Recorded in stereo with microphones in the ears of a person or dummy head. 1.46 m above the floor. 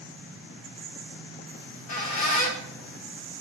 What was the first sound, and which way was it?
A squeak, 45° left (ahead or behind).